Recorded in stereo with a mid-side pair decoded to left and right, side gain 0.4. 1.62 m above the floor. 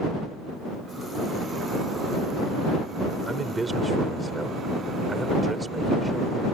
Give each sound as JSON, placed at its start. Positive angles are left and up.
{"t": 3.3, "sound": "a man speaking", "azimuth_deg": -25}